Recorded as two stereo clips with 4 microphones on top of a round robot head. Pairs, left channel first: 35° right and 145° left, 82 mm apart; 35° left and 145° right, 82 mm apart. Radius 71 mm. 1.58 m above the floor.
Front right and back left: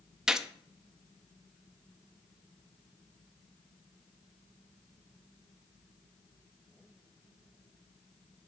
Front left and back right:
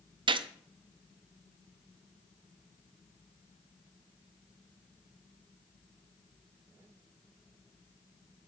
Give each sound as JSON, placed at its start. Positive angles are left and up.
{"t": 0.3, "sound": "a gunshot", "azimuth_deg": -135, "distance_m": 0.5}